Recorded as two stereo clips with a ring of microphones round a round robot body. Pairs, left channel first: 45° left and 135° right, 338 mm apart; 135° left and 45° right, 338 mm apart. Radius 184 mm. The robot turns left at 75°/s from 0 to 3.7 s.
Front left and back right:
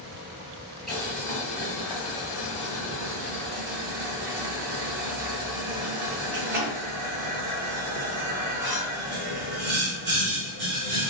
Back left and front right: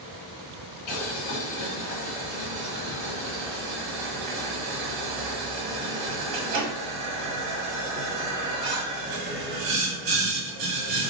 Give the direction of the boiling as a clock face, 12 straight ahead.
7 o'clock.